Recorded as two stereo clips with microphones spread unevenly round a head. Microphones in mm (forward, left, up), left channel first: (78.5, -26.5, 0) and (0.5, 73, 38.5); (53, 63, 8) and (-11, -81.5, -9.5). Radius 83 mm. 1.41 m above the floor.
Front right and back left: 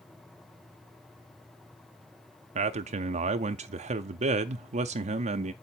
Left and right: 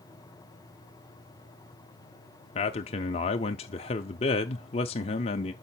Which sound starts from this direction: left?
A man speaking, at 2.5 s.